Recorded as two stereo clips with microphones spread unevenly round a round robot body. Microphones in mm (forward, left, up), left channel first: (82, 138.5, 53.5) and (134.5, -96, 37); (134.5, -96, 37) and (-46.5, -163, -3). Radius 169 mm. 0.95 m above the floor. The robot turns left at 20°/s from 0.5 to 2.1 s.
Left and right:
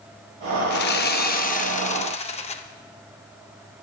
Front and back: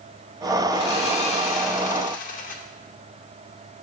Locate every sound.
0.7 s sawing: 75° left, 0.7 m; by 2.6 s 50° left, 0.7 m